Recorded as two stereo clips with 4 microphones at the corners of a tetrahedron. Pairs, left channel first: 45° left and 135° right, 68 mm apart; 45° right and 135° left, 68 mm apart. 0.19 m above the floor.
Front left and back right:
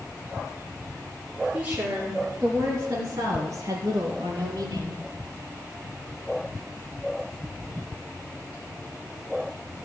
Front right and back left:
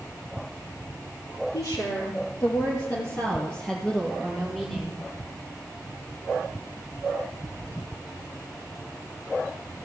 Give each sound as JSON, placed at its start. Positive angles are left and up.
{"t": 1.5, "sound": "a woman speaking", "azimuth_deg": -65, "distance_m": 3.5}